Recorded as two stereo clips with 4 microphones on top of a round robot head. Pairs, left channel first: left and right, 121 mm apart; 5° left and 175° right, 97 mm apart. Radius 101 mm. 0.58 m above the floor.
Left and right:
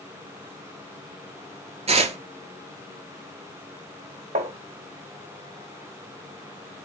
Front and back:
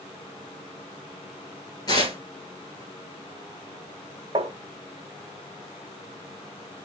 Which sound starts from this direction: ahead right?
Tearing paper, at 1.9 s.